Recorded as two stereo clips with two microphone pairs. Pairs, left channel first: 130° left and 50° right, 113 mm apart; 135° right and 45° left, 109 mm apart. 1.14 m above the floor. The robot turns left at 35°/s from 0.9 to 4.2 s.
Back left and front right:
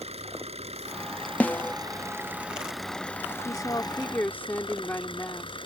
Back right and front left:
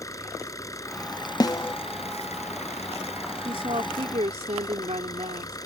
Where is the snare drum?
165° right; by 1.7 s straight behind.